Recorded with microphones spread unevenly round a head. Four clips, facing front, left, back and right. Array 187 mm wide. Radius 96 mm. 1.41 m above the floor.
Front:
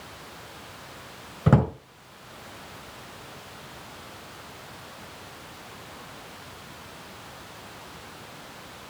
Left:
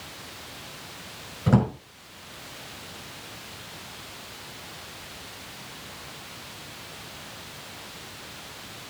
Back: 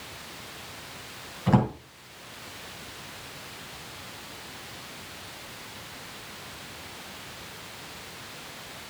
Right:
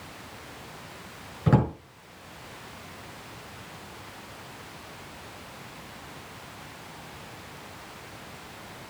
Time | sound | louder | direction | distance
1.5 | a drawer | left 1 dB, front 2 dB | straight ahead | 5.5 m